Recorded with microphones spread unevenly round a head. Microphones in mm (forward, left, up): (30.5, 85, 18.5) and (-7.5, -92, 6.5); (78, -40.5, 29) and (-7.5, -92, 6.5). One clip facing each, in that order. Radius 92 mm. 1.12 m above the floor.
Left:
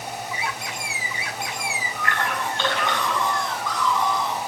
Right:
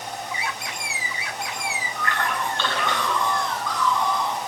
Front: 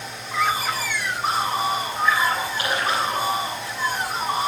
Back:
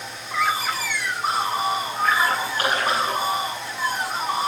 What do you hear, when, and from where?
2.0 s a splash: 155° left, 9.5 m